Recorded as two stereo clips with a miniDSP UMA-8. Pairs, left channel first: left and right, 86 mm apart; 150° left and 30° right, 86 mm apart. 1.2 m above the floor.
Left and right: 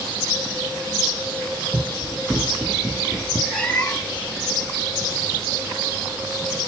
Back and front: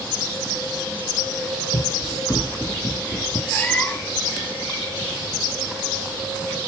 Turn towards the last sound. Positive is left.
turn(degrees=145)